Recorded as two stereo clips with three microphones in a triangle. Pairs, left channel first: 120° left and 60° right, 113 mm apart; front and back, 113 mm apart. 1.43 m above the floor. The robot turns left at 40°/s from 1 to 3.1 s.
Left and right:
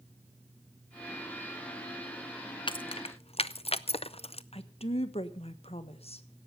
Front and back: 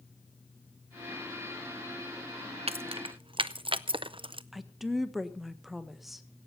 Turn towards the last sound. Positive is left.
turn(degrees=90)